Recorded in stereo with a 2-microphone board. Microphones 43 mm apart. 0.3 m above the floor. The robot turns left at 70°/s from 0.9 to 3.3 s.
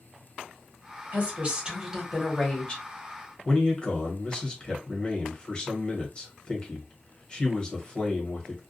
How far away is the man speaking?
About 1.1 m.